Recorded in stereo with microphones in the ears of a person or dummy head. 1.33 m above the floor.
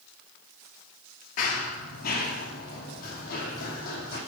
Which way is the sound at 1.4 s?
50° left (ahead or behind).